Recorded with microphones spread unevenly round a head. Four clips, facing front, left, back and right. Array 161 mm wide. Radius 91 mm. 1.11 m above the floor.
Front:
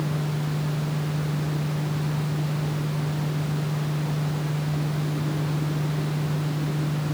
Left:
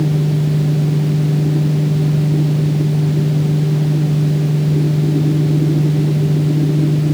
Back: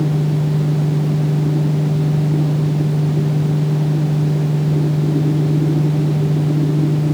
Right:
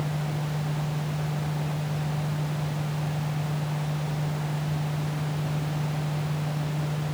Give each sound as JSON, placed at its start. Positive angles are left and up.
{"t": 0.0, "sound": "a fan", "azimuth_deg": 130}